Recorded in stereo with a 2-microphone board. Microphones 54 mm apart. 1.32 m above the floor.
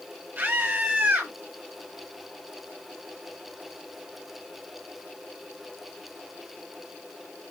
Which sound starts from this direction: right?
A scream, at 0.4 s.